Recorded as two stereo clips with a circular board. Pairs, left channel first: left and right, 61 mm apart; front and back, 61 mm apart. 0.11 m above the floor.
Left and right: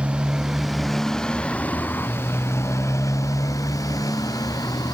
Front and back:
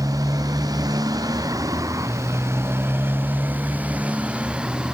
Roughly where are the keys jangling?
I don't hear keys jangling.